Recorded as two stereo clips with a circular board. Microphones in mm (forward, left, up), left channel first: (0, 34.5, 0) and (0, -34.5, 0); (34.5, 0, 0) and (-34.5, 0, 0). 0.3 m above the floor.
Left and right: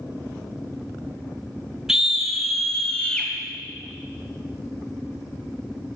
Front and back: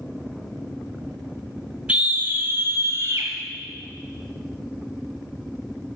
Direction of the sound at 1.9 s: 155° right.